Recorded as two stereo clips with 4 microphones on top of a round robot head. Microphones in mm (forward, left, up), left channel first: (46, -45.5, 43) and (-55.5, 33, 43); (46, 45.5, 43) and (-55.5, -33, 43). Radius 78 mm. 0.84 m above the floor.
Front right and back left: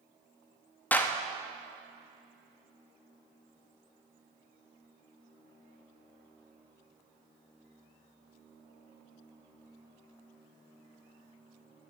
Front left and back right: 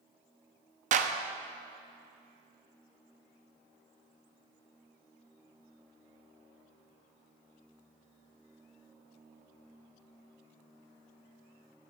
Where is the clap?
115° right, 0.6 m.